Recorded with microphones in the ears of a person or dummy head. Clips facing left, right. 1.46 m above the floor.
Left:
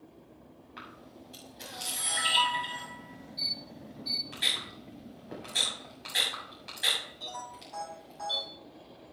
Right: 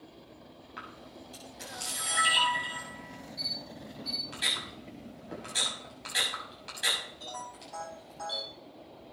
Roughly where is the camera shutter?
Centre.